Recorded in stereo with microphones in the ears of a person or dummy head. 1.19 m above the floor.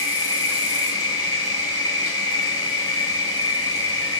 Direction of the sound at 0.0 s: 30° left (ahead or behind).